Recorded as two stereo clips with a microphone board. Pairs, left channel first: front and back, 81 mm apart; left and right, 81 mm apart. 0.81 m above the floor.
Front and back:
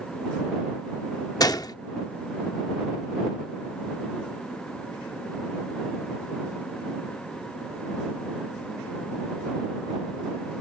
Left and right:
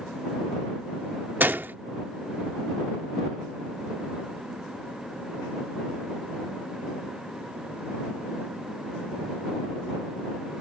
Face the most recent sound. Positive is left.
turn(degrees=-25)